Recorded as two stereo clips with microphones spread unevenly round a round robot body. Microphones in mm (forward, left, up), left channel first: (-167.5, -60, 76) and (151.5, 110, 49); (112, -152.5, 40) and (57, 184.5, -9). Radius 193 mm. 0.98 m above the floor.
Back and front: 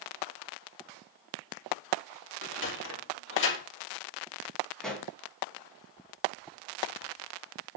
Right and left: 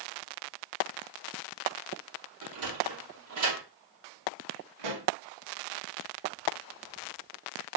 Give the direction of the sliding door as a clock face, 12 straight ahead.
7 o'clock.